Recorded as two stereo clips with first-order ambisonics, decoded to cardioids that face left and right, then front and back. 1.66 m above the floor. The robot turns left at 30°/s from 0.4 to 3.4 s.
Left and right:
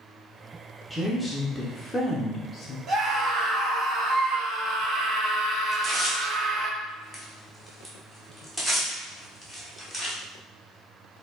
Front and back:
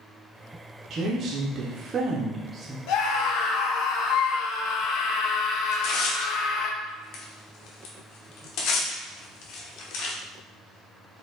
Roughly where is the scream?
Ahead right.